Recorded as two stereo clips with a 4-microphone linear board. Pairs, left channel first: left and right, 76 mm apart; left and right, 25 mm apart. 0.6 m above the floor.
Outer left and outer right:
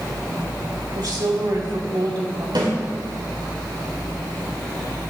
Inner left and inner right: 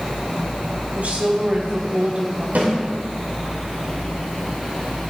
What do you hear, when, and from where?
0.9 s a woman speaking: 70° right (ahead or behind), 3 m
2.5 s a snare drum: 80° right, 5 m